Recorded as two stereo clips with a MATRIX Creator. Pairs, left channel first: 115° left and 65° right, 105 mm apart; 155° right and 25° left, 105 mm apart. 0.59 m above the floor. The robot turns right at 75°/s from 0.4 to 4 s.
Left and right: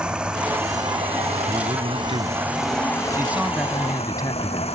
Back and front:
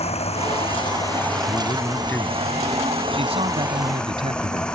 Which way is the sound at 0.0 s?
150° right.